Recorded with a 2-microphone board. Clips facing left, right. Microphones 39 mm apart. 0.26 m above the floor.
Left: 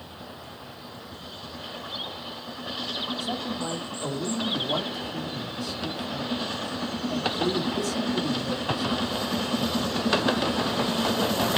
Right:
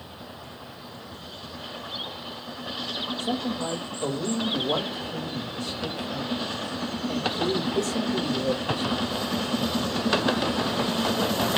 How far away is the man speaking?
About 6 m.